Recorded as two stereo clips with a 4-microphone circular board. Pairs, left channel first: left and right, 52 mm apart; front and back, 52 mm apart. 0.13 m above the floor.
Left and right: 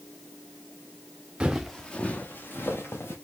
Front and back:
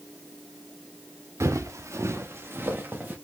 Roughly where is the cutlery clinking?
I don't hear cutlery clinking.